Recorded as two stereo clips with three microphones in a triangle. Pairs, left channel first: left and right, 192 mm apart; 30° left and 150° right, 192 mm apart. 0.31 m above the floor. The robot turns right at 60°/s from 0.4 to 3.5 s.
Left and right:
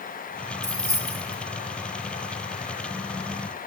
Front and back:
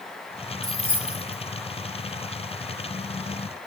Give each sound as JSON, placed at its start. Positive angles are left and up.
{"t": 0.6, "sound": "keys jangling", "azimuth_deg": -95, "distance_m": 0.7}